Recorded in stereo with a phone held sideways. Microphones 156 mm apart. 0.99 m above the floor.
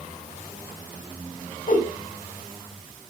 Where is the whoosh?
55° left (ahead or behind), 1.9 m.